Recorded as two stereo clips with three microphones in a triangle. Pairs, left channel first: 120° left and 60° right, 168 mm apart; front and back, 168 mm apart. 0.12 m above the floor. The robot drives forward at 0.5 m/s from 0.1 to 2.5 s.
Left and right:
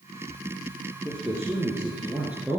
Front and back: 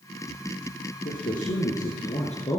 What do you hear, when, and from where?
1.1 s a man speaking: 10° left, 2 m; by 2.6 s 20° left, 1.6 m